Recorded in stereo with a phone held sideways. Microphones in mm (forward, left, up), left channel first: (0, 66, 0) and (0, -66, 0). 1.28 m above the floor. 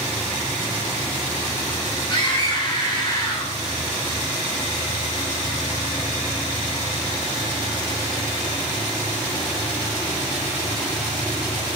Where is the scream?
35° left (ahead or behind), 8 m.